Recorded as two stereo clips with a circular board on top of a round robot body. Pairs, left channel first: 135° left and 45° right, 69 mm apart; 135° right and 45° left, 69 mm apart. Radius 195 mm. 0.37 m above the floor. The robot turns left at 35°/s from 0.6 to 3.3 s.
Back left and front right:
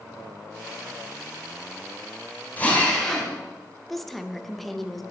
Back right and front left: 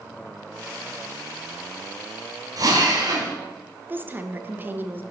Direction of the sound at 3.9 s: 50° left.